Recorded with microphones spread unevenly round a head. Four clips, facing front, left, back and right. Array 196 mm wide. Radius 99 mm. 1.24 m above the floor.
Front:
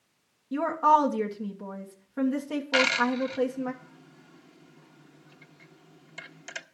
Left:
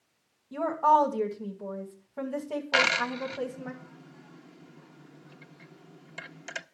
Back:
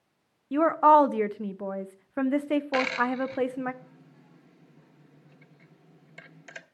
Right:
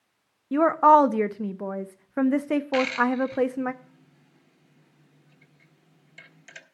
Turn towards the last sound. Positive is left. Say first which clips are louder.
# right 3 dB, front 1 dB
turn(degrees=80)